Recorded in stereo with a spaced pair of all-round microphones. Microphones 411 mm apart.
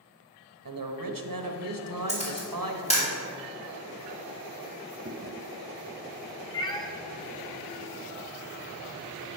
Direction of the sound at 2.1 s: 15° left (ahead or behind).